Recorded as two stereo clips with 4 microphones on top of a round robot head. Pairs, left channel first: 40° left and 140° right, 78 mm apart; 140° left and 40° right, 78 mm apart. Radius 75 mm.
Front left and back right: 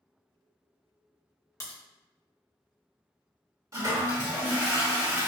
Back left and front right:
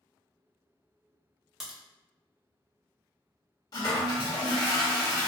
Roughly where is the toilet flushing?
Behind.